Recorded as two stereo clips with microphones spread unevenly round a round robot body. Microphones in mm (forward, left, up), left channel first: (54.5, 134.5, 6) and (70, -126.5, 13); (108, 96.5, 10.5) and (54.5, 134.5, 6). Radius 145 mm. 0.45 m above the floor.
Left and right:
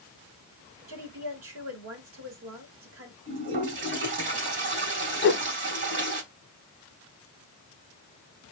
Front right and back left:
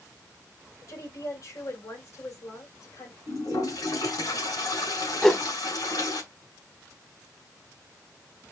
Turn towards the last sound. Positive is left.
turn(degrees=45)